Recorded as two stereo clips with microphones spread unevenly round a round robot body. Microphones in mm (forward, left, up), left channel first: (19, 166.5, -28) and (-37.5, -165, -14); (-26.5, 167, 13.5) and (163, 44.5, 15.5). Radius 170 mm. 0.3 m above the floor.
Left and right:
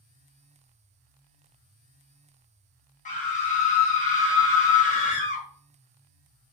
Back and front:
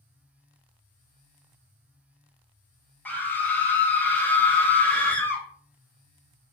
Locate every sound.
3.0 s a scream: 75° left, 1.1 m